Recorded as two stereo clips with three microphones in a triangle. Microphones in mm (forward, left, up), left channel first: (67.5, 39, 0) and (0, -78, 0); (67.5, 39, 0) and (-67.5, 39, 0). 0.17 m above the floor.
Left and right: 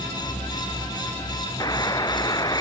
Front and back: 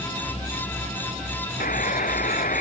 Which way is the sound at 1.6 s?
Straight ahead.